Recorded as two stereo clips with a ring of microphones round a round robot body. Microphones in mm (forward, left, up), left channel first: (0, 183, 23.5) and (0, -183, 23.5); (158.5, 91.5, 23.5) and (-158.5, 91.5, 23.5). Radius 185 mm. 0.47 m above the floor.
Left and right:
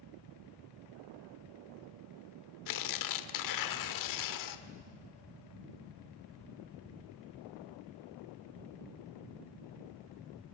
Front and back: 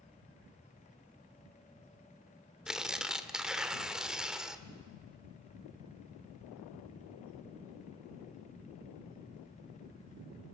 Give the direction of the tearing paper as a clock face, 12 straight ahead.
9 o'clock.